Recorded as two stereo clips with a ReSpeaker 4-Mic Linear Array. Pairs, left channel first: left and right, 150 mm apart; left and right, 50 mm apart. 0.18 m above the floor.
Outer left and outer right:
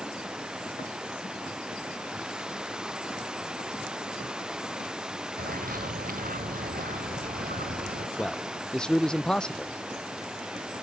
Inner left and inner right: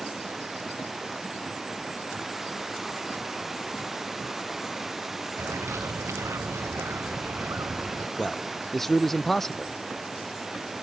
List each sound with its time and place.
0.0 s running water: 5° right (ahead or behind)
5.4 s a bird: 70° right (ahead or behind)
8.2 s a man speaking: 5° left (ahead or behind)